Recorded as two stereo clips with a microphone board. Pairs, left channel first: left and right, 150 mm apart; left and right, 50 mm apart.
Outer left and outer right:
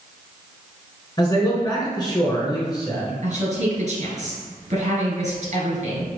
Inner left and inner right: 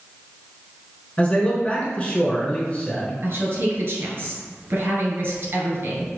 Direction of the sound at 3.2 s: 50° right (ahead or behind).